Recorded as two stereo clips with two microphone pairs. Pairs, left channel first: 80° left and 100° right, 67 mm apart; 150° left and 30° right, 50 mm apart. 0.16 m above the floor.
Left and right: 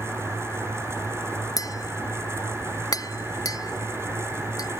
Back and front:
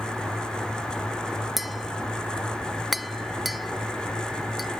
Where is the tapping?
55° left.